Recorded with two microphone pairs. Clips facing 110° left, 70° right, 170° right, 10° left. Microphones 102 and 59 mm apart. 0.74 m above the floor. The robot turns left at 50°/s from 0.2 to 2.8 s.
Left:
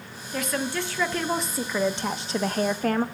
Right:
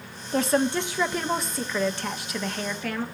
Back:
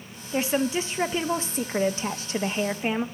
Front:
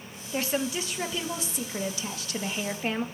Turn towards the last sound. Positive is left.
turn(degrees=130)